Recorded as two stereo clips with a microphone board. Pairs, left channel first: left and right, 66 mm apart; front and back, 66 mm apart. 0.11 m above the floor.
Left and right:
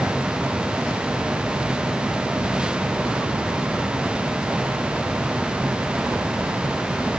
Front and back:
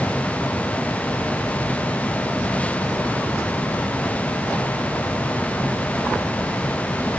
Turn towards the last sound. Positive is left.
No sound to turn to.